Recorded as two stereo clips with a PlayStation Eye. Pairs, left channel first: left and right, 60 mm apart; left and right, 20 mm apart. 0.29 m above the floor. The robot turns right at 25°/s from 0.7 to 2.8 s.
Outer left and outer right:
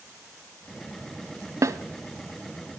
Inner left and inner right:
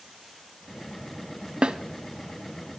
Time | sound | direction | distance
1.6 | a snare drum | 60° right (ahead or behind) | 0.9 m